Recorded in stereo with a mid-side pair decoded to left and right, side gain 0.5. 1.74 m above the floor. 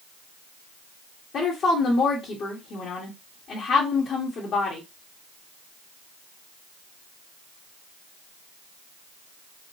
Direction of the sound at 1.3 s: 55° left.